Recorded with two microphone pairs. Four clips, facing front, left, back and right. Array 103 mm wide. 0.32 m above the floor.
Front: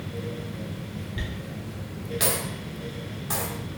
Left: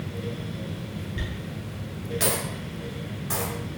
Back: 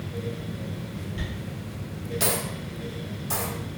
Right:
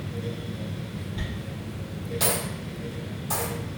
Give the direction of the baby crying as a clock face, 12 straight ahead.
No baby crying in this recording.